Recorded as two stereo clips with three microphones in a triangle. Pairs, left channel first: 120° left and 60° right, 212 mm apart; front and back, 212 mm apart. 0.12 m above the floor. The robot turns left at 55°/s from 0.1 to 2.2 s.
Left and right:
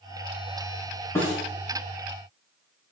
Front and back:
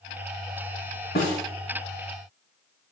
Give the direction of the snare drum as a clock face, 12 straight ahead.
11 o'clock.